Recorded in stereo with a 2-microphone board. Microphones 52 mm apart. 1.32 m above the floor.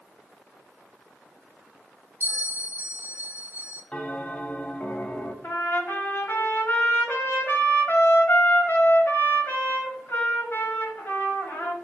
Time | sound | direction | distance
2.2 | a bell | 35° right (ahead or behind) | 0.8 m
3.9 | a bell | 20° left (ahead or behind) | 0.5 m
5.4 | a trumpet | 45° left (ahead or behind) | 1.0 m